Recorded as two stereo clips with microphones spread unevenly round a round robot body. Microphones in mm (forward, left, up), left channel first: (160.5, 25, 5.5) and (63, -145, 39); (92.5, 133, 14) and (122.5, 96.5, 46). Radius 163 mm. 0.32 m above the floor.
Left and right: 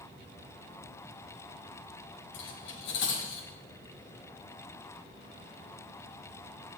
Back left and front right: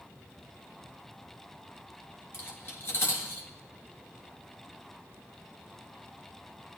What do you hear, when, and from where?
2.3 s cutlery clinking: 100° left, 3 m